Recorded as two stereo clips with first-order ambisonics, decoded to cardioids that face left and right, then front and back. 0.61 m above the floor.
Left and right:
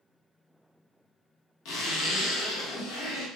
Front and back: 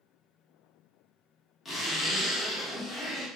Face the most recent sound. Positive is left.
turn(degrees=80)